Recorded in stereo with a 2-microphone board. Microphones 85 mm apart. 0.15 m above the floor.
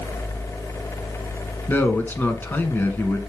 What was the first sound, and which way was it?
A man speaking, 25° left (ahead or behind).